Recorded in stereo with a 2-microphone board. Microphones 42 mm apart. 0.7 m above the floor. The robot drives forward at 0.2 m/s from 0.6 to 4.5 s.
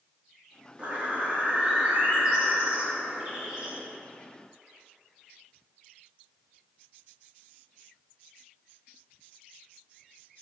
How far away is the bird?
About 0.9 m.